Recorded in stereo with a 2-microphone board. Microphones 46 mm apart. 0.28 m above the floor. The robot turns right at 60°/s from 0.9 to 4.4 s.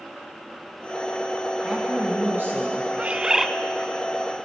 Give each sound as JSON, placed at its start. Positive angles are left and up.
{"t": 1.6, "sound": "a woman speaking", "azimuth_deg": -160, "distance_m": 3.0}
{"t": 3.0, "sound": "a bird", "azimuth_deg": -35, "distance_m": 0.7}